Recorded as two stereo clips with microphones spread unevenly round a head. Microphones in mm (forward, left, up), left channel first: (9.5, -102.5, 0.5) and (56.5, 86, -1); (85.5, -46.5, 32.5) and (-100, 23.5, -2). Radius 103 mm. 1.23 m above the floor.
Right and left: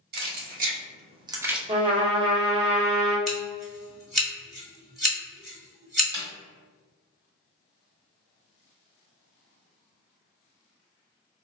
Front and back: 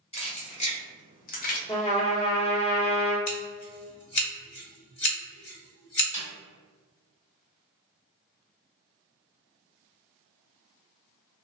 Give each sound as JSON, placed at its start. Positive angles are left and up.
{"t": 0.1, "sound": "keys jangling", "azimuth_deg": 40, "distance_m": 1.1}
{"t": 1.7, "sound": "a trumpet", "azimuth_deg": 15, "distance_m": 1.0}
{"t": 3.3, "sound": "scissors", "azimuth_deg": -15, "distance_m": 1.5}
{"t": 6.1, "sound": "a snare drum", "azimuth_deg": 20, "distance_m": 1.4}